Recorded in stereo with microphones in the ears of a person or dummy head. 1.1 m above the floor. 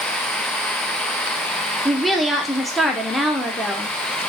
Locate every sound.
1.9 s a woman speaking: 5° right (ahead or behind), 0.6 m